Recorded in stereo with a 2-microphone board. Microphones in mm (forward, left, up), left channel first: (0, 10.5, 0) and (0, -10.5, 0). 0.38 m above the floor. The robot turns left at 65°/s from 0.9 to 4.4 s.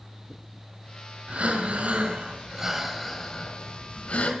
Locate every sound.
1.3 s breathing: 70° right, 4.5 m; by 4.3 s 95° left, 4.5 m